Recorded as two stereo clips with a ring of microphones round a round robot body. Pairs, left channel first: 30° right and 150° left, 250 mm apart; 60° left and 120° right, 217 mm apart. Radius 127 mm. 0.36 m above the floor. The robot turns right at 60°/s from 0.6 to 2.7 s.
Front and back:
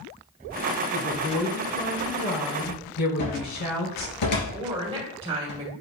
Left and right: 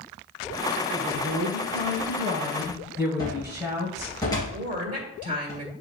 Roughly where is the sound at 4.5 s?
Behind right.